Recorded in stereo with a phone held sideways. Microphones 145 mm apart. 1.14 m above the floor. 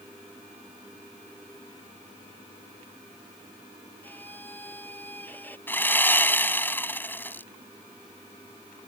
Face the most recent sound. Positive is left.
turn(degrees=15)  # may be behind; listen again after turning